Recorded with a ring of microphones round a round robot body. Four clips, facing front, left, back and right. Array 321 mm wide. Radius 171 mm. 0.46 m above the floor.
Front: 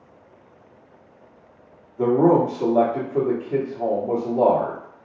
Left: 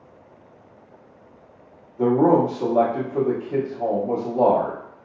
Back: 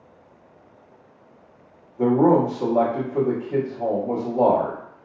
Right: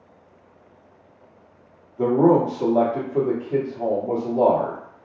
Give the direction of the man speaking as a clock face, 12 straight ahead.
1 o'clock.